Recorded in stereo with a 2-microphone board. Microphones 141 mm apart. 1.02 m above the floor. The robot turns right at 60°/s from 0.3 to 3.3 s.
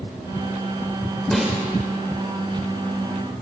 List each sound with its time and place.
1.3 s a snare drum: 5° left (ahead or behind), 1.9 m; by 1.6 s 10° right (ahead or behind), 1.9 m